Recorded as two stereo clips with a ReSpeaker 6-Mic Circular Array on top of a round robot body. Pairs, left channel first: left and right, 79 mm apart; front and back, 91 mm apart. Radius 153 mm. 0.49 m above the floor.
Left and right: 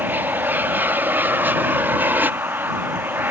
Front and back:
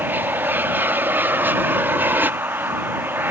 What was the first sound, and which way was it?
An aircraft, 130° right.